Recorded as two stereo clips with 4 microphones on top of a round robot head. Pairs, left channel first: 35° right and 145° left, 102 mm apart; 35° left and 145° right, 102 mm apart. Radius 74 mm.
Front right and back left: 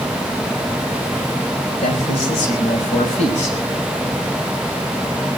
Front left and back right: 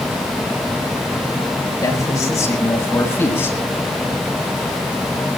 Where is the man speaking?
25° right, 5.5 m; by 3.6 s 35° right, 6 m.